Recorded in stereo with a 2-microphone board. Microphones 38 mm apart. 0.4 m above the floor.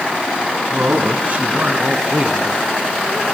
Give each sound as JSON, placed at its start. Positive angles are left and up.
{"t": 0.7, "sound": "a man speaking", "side_deg": -50, "distance_m": 4.0}